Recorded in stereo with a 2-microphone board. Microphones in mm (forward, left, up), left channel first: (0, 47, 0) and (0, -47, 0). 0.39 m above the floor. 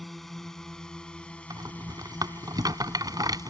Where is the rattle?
45° right (ahead or behind).